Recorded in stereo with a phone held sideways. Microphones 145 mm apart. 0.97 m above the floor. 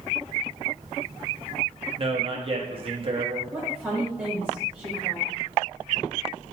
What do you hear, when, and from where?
2.0 s a man speaking: 45° right (ahead or behind), 1.2 m
3.5 s a woman speaking: 10° right (ahead or behind), 4 m